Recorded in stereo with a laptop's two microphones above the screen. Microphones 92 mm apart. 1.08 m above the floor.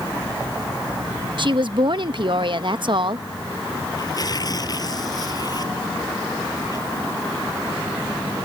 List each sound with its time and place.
1.4 s a woman speaking: 55° right (ahead or behind)
4.0 s tearing paper: 40° left (ahead or behind)